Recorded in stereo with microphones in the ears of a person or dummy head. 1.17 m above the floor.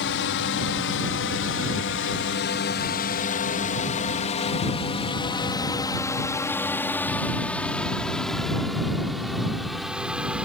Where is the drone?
60° left (ahead or behind); by 10.4 s 10° right (ahead or behind).